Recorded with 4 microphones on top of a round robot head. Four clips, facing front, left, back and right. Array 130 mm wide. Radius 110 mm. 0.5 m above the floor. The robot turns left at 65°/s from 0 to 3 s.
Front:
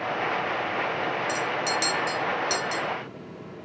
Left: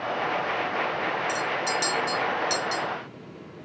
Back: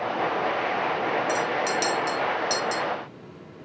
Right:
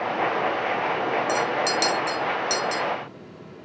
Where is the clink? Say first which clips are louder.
Right 4 dB, back 2 dB; 60° right, 0.8 m; by 2.8 s 160° right, 0.8 m.